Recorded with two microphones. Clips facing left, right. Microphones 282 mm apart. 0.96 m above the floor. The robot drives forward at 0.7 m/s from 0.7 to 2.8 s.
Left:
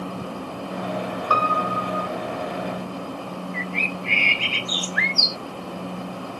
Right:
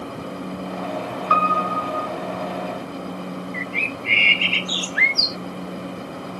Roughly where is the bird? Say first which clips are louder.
Even; left.